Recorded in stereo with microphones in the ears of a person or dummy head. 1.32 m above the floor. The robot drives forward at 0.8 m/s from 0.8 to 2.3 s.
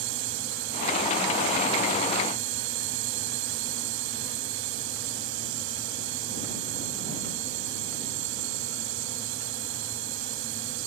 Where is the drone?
70° right (ahead or behind).